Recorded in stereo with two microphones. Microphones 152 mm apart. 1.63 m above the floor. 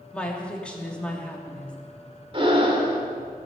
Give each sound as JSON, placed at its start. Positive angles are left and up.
{"t": 0.1, "sound": "a woman speaking", "side_deg": 5, "distance_m": 3.0}
{"t": 2.3, "sound": "breathing", "side_deg": -35, "distance_m": 2.5}